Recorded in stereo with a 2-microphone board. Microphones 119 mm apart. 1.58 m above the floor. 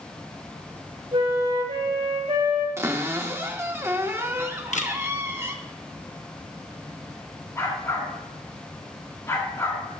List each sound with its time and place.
1.1 s a flute: 45° right (ahead or behind), 3 m
2.8 s a cupboard door: 20° right (ahead or behind), 0.8 m
4.7 s a camera shutter: 70° left (ahead or behind), 0.8 m
7.5 s a dog barking: 20° left (ahead or behind), 5.5 m